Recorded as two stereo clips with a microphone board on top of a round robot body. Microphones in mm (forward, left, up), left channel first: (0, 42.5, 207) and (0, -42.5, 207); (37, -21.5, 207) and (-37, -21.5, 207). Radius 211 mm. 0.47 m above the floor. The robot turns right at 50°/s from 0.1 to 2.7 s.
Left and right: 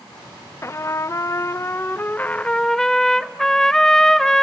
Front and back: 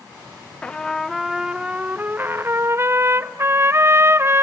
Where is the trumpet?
65° left, 0.5 m; by 4.4 s 170° left, 0.5 m.